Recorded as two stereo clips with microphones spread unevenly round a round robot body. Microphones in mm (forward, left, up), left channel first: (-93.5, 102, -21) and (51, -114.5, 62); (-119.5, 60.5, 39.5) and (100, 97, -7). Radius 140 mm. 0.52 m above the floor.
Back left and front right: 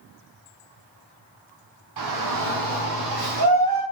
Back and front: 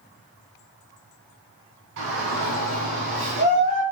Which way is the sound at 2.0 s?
30° right.